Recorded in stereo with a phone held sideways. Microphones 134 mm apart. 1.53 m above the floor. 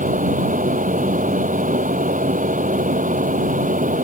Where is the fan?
80° right.